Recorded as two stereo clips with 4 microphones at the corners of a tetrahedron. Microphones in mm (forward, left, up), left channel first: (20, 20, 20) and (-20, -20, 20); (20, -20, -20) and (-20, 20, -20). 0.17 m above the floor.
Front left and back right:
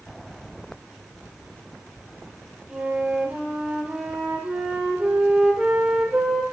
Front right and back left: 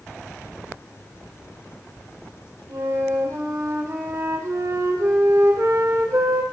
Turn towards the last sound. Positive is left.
turn(degrees=150)